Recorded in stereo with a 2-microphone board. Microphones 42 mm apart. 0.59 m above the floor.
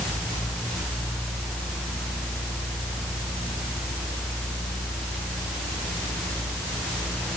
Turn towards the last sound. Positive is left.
No sound to turn to.